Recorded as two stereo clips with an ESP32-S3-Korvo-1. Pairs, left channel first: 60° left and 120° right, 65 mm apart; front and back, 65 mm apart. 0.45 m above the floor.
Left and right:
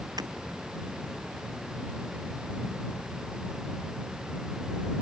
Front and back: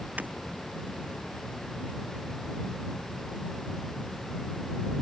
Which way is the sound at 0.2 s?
115° right.